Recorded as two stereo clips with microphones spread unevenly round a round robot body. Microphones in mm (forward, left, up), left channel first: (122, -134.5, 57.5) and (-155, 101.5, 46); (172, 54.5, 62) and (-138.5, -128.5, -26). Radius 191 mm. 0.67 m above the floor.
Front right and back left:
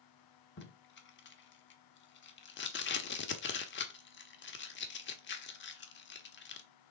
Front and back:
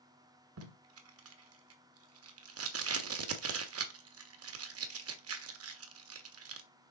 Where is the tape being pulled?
100° right, 1.2 m.